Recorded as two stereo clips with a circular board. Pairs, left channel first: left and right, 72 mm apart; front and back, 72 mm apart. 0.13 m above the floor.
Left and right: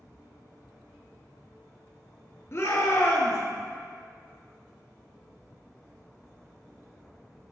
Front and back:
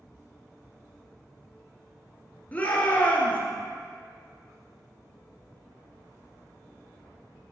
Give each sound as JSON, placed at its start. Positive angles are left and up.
{"t": 2.5, "sound": "a shout", "azimuth_deg": 60, "distance_m": 1.9}